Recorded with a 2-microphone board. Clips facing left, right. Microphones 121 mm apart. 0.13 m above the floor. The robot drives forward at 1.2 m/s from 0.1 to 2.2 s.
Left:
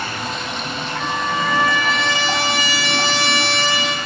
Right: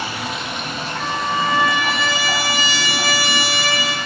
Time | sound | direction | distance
0.0 | running water | 10° right (ahead or behind) | 1.3 m
1.0 | a trumpet | 10° right (ahead or behind) | 0.6 m